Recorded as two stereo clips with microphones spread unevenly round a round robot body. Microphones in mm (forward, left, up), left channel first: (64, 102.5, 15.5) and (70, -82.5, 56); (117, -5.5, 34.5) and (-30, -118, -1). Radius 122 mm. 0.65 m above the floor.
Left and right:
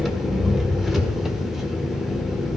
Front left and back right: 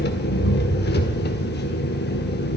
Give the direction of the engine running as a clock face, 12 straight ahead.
12 o'clock.